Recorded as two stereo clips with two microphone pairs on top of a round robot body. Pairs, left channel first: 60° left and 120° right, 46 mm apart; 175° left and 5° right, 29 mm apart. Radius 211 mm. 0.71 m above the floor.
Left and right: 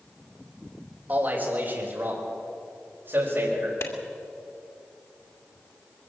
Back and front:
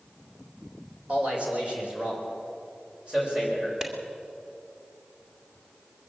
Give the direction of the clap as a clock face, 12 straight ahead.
10 o'clock.